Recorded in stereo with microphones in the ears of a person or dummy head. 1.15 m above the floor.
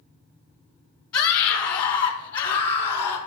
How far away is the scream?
About 3.5 m.